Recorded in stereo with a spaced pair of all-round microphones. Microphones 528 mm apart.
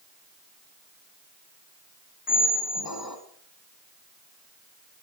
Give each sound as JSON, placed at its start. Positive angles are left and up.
{"t": 2.3, "sound": "a squeak", "side_deg": 40, "distance_m": 1.7}